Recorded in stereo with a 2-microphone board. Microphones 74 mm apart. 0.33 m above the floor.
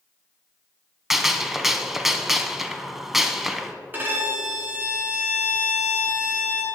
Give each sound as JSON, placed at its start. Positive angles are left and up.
{"t": 1.1, "sound": "a gunshot", "side_deg": -5, "distance_m": 0.7}
{"t": 3.9, "sound": "a violin", "side_deg": -25, "distance_m": 2.5}